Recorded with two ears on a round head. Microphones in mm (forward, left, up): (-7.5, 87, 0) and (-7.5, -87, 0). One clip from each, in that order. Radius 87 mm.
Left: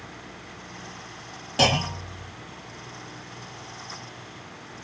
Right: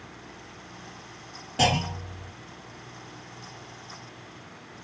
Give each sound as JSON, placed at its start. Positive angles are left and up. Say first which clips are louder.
{"t": 1.6, "sound": "a clunk", "louder": "left 2 dB", "side_deg": 40, "distance_m": 1.4}